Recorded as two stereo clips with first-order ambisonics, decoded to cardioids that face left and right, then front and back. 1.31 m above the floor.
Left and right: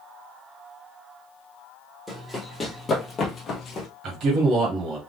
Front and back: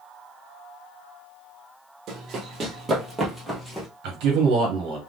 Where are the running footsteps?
Straight behind, 1.5 m; by 3.9 s 75° left, 1.4 m.